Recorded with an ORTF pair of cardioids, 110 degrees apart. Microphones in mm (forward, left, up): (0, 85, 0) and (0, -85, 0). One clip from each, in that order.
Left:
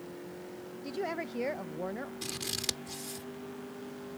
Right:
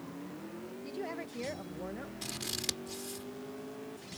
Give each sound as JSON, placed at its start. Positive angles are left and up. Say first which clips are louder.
{"t": 0.8, "sound": "a woman speaking", "louder": "left 5 dB", "azimuth_deg": 25}
{"t": 2.2, "sound": "scissors", "louder": "left 1 dB", "azimuth_deg": 5}